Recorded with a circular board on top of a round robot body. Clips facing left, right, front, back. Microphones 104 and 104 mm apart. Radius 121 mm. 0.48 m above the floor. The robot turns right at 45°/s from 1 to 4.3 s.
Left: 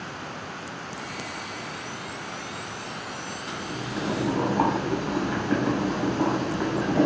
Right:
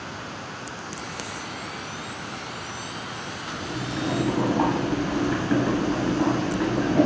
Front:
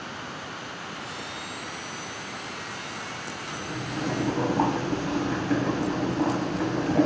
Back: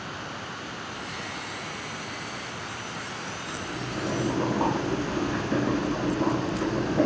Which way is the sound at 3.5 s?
25° right.